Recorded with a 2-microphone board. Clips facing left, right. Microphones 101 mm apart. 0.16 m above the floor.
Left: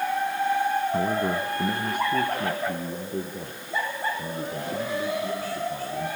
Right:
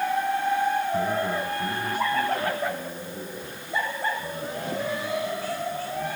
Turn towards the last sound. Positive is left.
turn(degrees=70)  # may be behind; listen again after turning